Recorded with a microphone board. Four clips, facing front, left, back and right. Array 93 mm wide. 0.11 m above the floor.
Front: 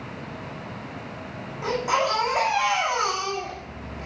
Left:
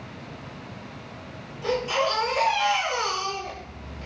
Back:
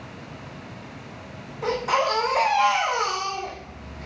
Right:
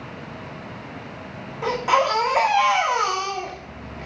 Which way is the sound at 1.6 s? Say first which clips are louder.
Right 5 dB, back 1 dB; 80° right.